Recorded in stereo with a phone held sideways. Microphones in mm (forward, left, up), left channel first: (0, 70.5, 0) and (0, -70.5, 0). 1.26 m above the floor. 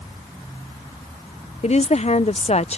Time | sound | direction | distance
1.6 | a woman speaking | 50° left (ahead or behind) | ?